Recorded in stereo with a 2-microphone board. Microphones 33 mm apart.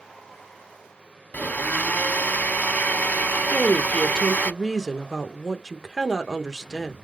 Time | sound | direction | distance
1.3 | a blender | 65° left (ahead or behind) | 0.6 m
3.5 | a woman speaking | 15° right (ahead or behind) | 0.8 m